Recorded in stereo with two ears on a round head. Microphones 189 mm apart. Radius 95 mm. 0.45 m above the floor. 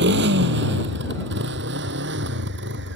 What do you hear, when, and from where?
0.0 s a motorcycle: 55° right (ahead or behind); by 3.0 s 60° right (ahead or behind)